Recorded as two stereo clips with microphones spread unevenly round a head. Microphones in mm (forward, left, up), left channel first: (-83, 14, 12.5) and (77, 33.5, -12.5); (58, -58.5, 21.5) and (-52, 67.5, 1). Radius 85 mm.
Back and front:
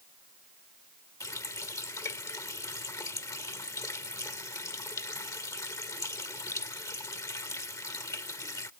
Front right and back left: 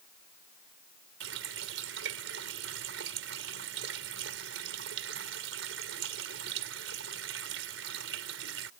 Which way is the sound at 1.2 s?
120° left.